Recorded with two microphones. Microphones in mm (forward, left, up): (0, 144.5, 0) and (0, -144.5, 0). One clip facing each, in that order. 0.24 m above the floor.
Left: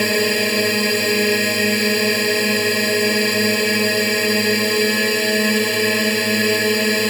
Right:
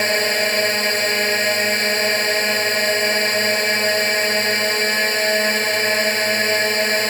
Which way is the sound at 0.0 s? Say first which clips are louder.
Left 4 dB; 35° left (ahead or behind).